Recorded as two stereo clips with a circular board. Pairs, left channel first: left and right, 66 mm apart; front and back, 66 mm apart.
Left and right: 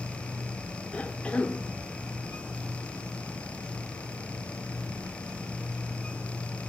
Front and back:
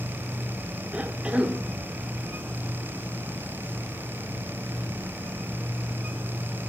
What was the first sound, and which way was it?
A cough, 135° left.